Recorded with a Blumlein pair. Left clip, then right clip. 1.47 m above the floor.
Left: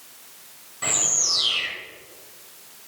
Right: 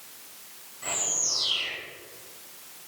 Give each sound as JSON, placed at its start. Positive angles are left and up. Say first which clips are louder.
{"t": 0.8, "sound": "a bird", "louder": "left 6 dB", "azimuth_deg": 60, "distance_m": 3.0}